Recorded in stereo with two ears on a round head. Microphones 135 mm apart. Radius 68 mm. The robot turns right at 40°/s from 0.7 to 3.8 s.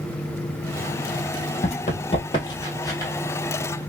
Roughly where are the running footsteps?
Left.